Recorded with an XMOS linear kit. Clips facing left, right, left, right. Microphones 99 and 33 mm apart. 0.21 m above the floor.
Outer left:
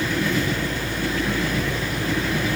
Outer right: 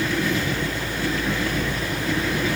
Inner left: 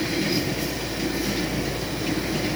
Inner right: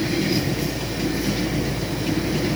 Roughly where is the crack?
I don't hear a crack.